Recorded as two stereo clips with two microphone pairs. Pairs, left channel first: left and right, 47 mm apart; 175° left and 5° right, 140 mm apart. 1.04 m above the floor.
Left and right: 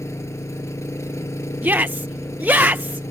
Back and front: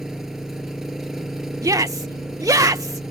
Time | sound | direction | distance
0.0 | an engine running | 85° left | ?
1.6 | a shout | 60° right | ?